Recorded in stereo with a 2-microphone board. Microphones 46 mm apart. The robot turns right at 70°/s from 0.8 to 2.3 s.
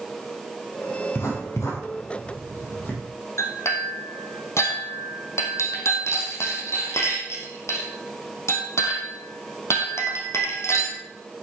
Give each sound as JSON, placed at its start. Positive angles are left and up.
{"t": 1.1, "sound": "writing", "side_deg": 50, "distance_m": 7.0}
{"t": 3.4, "sound": "a clink", "side_deg": 70, "distance_m": 3.5}